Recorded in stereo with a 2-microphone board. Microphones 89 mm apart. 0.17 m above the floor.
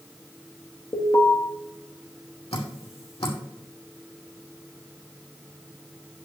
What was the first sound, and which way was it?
An alarm, 60° left (ahead or behind).